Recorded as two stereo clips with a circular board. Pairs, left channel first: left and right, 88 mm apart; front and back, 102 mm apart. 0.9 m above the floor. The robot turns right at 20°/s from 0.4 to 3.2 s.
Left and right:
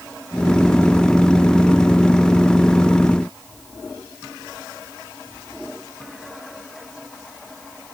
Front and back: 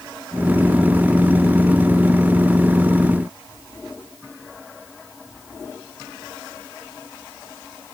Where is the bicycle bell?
No bicycle bell in this recording.